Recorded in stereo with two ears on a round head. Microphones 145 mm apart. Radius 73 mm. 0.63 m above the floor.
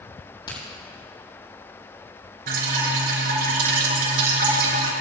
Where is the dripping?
65° right (ahead or behind), 5.5 m.